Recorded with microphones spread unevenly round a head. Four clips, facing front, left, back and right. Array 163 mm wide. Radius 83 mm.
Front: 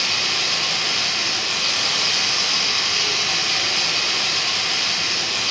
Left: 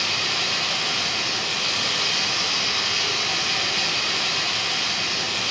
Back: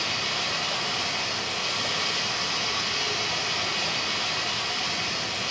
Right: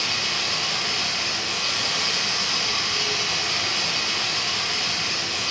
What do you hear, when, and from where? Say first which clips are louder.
0.0 s running water: left 1 dB, front 3 dB; 25° left, 3.5 m